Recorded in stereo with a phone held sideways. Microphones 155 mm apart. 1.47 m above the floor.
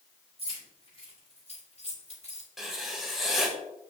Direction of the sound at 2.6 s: Centre (ahead or behind).